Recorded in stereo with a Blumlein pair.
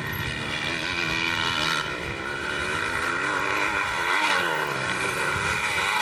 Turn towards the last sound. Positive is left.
turn(degrees=-5)